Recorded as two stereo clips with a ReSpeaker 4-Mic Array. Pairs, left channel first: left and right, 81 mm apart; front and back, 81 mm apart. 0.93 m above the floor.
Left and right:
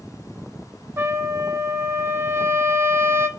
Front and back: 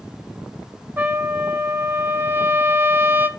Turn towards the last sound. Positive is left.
turn(degrees=-130)